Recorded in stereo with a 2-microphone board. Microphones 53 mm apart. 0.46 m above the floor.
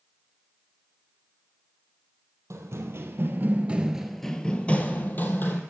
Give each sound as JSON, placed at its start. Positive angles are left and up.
{"t": 2.5, "sound": "running footsteps", "side_deg": -70, "distance_m": 0.9}